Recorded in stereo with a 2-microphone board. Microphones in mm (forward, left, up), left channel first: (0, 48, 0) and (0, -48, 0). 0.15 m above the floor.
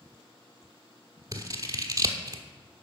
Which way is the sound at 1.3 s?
40° right (ahead or behind).